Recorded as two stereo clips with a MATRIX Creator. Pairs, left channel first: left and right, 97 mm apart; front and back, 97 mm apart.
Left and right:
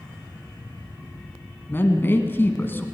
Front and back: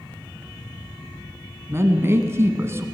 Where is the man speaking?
140° left, 1.4 m.